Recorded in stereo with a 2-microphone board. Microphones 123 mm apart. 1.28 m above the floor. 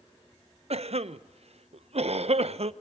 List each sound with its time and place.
0.7 s a cough: 60° right (ahead or behind), 0.8 m